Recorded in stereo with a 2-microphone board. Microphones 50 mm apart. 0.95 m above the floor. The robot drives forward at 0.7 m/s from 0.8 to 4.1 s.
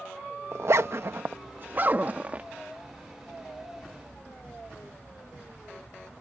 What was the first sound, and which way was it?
A zipper, 65° right (ahead or behind).